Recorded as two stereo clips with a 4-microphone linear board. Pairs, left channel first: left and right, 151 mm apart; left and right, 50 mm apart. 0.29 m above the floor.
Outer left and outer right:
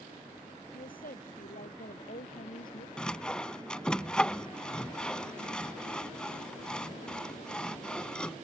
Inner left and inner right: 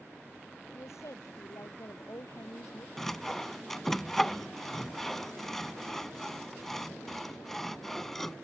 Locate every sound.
0.7 s a woman speaking: 70° left (ahead or behind); by 2.9 s 80° left
3.0 s sawing: 5° left (ahead or behind)